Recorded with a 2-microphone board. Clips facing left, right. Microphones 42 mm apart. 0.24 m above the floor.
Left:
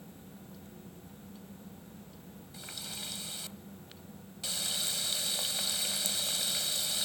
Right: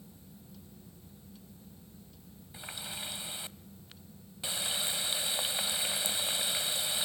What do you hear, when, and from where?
2.5 s a running tap: 25° right (ahead or behind), 0.6 m